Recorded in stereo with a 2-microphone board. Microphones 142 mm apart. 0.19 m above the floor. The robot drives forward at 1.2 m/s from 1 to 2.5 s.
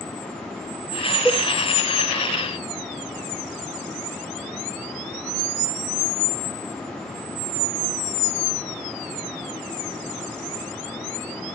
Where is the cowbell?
5° right (ahead or behind), 4.5 m.